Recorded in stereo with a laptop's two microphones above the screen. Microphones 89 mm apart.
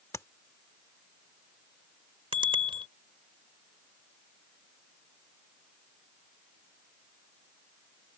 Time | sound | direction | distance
0.1 | tapping | 35° left (ahead or behind) | ?
2.3 | a bicycle bell | 75° right (ahead or behind) | ?